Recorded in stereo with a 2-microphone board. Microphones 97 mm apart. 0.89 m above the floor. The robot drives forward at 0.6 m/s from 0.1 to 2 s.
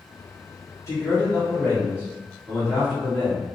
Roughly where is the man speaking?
Left.